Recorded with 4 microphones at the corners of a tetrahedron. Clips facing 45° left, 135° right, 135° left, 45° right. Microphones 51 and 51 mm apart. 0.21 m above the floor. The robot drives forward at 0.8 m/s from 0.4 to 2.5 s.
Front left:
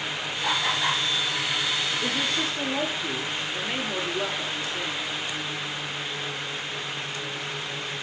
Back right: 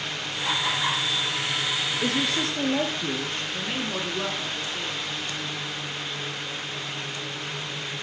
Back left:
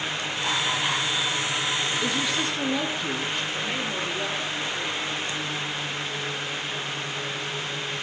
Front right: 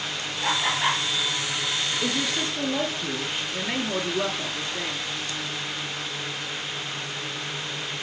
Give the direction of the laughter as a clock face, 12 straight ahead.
2 o'clock.